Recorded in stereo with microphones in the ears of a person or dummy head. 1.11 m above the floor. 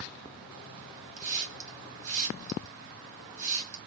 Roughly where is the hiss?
Right.